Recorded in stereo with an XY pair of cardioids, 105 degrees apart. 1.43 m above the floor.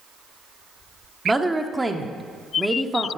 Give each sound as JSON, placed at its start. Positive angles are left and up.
{"t": 1.2, "sound": "a woman speaking", "azimuth_deg": -15, "distance_m": 0.7}